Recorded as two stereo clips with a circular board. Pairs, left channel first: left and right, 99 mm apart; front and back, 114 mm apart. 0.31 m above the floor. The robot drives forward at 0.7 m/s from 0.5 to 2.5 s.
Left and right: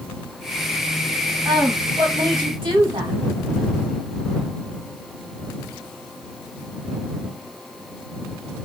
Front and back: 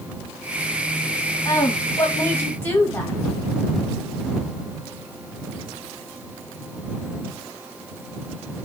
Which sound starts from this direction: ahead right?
A woman speaking, at 1.4 s.